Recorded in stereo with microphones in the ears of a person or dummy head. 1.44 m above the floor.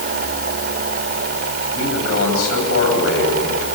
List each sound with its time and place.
1.7 s a man speaking: 80° left, 9.5 m